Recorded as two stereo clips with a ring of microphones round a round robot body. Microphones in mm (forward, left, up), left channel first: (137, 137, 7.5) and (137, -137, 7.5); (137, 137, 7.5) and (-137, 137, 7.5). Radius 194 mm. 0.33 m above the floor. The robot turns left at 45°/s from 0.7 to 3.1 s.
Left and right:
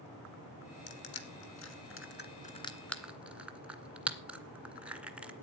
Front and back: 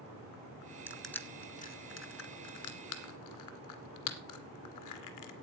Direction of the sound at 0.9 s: 95° left.